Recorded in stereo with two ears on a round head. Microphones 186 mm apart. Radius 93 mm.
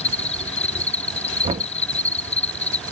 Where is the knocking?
25° right (ahead or behind).